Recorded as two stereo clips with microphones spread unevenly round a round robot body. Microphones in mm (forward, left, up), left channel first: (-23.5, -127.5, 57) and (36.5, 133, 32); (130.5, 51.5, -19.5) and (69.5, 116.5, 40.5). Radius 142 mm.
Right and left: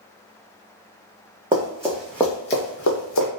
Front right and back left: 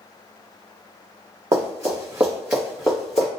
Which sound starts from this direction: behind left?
Running footsteps, at 1.5 s.